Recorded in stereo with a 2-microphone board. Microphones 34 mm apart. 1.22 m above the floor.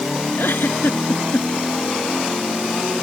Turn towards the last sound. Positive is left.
turn(degrees=85)